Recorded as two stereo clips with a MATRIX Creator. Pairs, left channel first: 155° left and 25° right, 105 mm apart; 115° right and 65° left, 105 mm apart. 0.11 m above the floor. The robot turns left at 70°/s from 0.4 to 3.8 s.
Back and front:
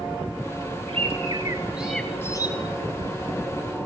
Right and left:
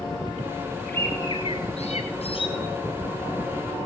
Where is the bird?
35° right, 8.5 m; by 2.5 s 150° right, 8.5 m.